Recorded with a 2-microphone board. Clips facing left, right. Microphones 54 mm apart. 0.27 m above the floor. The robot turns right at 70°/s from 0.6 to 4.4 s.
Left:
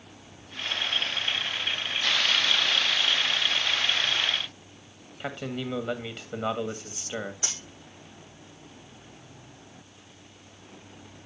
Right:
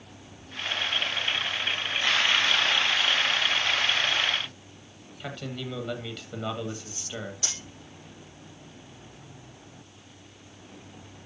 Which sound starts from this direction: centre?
A man speaking, at 5.2 s.